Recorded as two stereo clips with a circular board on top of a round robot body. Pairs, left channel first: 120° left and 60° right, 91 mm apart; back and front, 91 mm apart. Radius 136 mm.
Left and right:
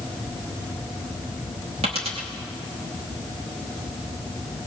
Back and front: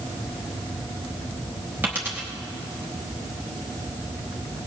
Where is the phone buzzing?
No phone buzzing in this recording.